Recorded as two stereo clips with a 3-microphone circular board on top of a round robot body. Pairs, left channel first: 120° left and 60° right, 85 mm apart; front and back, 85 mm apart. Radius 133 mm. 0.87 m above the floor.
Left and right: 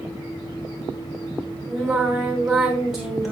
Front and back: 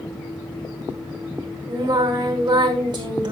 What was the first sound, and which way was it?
Singing, 145° right.